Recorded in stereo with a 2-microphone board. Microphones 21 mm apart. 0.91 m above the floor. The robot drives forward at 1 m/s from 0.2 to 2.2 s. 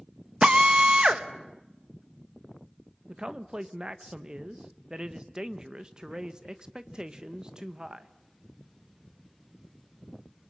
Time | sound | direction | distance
0.4 | a drill | 40° right (ahead or behind) | 1.2 m
3.1 | a man speaking | 35° right (ahead or behind) | 1.1 m